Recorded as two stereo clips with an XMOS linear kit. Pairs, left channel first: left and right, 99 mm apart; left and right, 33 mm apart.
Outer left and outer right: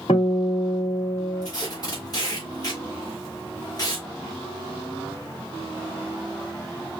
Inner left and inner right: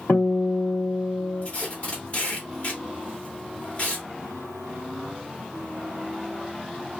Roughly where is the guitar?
Left.